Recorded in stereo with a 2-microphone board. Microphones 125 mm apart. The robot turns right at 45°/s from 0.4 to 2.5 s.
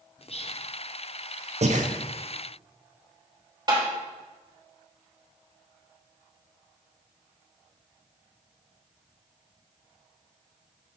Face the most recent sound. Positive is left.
turn(degrees=-30)  # may be behind; listen again after turning